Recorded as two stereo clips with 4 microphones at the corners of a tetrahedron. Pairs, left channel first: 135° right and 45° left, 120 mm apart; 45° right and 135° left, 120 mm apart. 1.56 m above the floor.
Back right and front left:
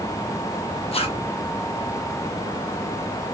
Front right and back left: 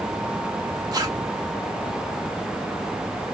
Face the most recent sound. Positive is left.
turn(degrees=-170)